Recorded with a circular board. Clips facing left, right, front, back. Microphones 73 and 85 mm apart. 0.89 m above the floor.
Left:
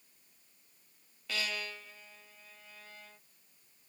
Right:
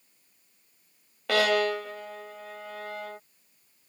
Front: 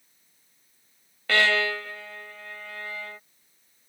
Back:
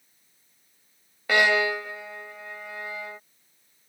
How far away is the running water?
I don't hear running water.